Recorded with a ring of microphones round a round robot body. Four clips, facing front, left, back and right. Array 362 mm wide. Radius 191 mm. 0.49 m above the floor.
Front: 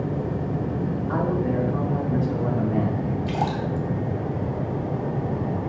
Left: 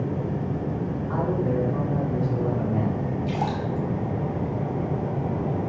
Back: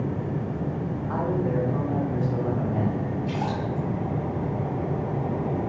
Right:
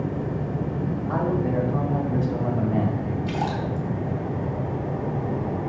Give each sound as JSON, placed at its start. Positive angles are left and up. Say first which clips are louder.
{"t": 1.1, "sound": "a man speaking", "louder": "right 1 dB, front 1 dB", "azimuth_deg": -65, "distance_m": 3.0}
{"t": 3.3, "sound": "a splash", "louder": "right 1 dB, front 2 dB", "azimuth_deg": -20, "distance_m": 2.5}